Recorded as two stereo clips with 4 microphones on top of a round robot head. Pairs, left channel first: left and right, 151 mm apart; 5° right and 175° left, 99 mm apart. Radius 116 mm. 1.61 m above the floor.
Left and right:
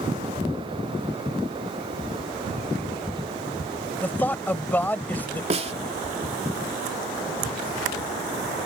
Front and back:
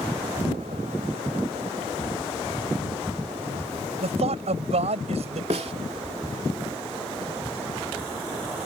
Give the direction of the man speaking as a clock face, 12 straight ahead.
6 o'clock.